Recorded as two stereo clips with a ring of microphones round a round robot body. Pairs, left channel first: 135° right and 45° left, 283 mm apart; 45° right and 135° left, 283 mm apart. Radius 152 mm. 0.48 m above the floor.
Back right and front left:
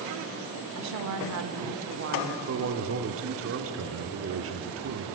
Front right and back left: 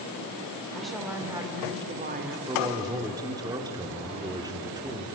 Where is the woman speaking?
45° left, 1.3 m; by 2.4 s 90° left, 1.2 m.